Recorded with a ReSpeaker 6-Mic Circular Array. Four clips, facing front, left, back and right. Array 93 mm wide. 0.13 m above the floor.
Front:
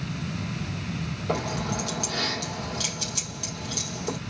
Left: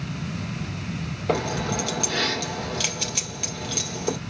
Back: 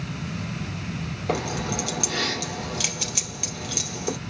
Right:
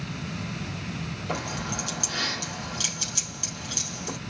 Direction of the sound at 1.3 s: 125° left.